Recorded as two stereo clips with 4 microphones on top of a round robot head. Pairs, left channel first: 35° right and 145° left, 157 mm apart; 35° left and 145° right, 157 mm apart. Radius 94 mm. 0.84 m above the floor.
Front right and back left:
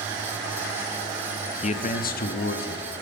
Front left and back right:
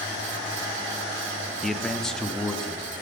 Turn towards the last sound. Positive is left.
turn(degrees=-50)